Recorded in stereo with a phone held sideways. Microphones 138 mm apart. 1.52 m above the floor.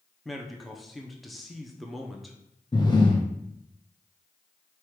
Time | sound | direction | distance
0.2 | a man speaking | centre (ahead or behind) | 0.6 m
2.7 | breathing | 30° left (ahead or behind) | 0.7 m